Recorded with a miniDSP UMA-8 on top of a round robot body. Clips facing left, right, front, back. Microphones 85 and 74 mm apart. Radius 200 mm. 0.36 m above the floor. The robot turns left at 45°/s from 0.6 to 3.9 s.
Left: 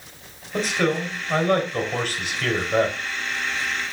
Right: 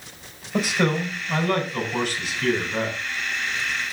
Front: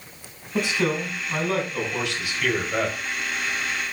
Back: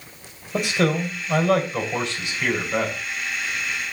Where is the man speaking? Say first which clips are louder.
Even, back 2 dB; 175° right, 3.5 m; by 3.0 s 80° left, 3.5 m.